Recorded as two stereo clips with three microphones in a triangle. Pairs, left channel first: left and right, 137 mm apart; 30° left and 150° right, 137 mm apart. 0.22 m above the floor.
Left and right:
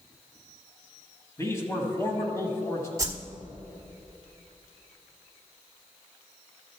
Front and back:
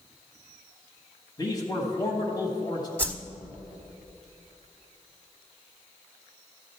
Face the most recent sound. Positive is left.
turn(degrees=-40)